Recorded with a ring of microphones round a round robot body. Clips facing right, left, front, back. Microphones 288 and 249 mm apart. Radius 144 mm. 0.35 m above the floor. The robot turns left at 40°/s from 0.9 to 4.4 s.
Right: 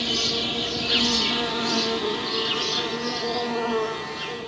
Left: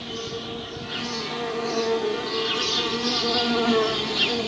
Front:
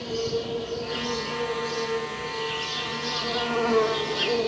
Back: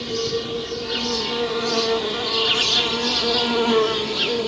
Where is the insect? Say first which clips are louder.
Right 4 dB, back 3 dB; 110° right, 1.0 m; by 4.5 s 110° left, 1.0 m.